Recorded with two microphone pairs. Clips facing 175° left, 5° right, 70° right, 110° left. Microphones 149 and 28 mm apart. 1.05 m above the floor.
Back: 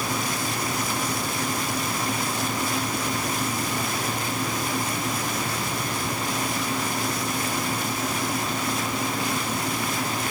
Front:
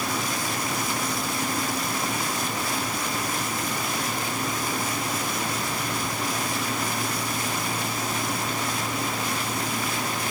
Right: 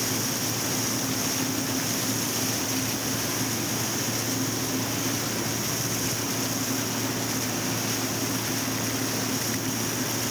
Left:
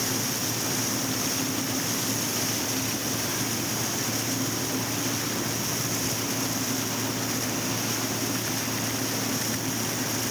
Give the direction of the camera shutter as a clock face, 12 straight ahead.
No camera shutter in this recording.